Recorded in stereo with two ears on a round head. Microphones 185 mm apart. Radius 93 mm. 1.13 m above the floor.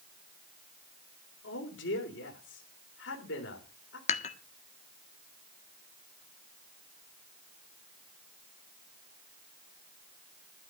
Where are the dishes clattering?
35° left (ahead or behind), 1.6 m.